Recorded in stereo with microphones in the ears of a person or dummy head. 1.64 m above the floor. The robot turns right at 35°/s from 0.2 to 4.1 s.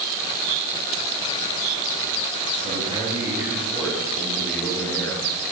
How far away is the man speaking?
About 3.5 m.